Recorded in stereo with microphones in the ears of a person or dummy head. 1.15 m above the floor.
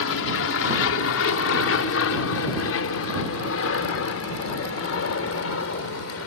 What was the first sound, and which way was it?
An aircraft, 65° left (ahead or behind).